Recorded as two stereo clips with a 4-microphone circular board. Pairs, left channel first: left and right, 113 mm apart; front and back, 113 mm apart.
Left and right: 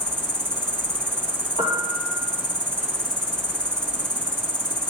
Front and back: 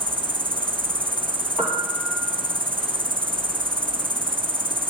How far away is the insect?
About 0.8 m.